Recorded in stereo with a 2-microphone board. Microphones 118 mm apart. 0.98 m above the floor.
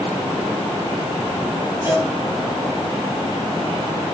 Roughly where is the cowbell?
Right.